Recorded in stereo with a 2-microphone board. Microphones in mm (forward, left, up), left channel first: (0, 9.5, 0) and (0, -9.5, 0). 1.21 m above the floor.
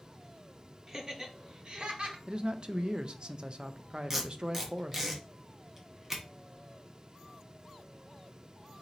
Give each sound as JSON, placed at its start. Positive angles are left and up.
{"t": 0.9, "sound": "laughter", "side_deg": -20, "distance_m": 1.1}
{"t": 2.3, "sound": "a man speaking", "side_deg": -45, "distance_m": 0.5}
{"t": 4.1, "sound": "tape being pulled", "side_deg": -15, "distance_m": 1.1}